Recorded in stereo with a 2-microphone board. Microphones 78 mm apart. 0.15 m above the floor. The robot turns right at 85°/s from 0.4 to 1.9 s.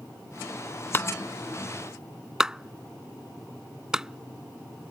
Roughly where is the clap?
Left.